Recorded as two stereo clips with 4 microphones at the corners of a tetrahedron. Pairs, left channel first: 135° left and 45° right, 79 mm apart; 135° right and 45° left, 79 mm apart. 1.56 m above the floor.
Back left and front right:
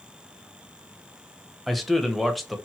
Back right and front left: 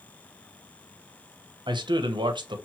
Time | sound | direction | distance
1.7 | a man speaking | 45° left | 0.6 m